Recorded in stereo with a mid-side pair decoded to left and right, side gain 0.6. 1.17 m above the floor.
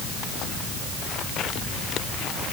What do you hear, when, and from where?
Only background noise.